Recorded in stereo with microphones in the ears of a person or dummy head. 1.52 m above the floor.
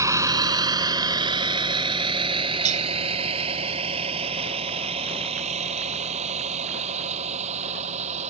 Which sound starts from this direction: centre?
A vehicle, at 0.0 s.